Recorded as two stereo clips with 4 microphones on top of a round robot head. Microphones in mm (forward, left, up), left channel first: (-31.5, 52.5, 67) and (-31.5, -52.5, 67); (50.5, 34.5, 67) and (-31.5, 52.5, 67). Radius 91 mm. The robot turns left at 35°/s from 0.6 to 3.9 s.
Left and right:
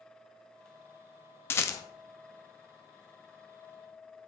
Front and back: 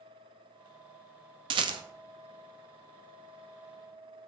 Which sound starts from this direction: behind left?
A rattle, at 1.5 s.